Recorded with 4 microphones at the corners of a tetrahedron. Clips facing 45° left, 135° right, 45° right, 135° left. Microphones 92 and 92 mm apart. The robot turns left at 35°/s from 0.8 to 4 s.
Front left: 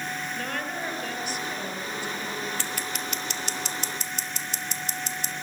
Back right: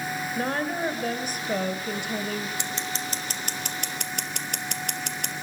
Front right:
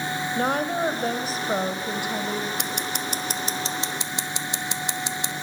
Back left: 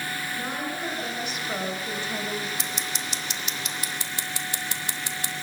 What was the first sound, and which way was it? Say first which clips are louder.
A woman speaking: back right 8 dB, front right 11 dB; 80° right.